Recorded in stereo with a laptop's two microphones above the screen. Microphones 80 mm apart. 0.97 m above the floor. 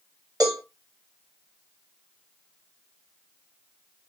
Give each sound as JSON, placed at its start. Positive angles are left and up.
{"t": 0.4, "sound": "a cowbell", "side_deg": -50, "distance_m": 1.0}